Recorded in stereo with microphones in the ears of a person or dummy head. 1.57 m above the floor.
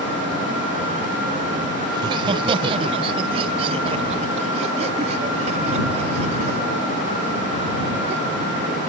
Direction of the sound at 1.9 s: 25° right (ahead or behind).